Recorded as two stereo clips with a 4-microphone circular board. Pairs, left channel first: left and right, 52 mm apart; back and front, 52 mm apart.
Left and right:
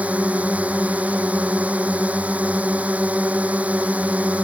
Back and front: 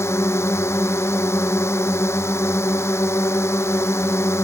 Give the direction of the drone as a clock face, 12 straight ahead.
5 o'clock.